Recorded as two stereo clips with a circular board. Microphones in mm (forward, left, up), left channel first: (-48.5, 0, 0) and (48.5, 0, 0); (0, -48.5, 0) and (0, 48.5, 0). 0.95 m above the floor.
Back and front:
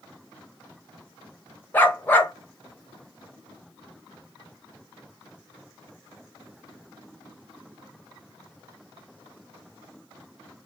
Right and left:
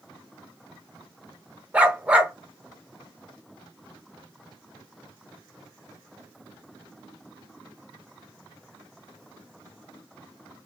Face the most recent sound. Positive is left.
turn(degrees=145)